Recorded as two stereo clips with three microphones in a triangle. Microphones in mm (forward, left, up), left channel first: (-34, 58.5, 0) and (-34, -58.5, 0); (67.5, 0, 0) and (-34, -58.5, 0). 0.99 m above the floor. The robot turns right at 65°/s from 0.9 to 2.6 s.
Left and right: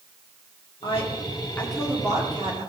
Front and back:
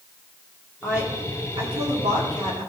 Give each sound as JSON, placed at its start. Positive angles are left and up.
{"t": 0.8, "sound": "a woman speaking", "azimuth_deg": 125, "distance_m": 2.0}